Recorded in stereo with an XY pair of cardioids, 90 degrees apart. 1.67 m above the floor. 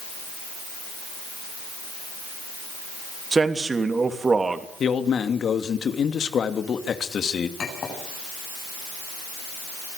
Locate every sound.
3.3 s a man speaking: 35° right, 3 m
4.8 s a man speaking: 60° left, 2.5 m
7.6 s a clink: 55° left, 8.5 m